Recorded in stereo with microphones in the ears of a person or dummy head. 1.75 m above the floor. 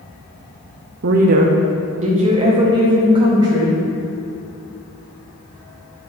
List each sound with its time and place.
1.0 s a woman speaking: 55° right (ahead or behind), 0.7 m; by 3.8 s 15° right (ahead or behind), 2.5 m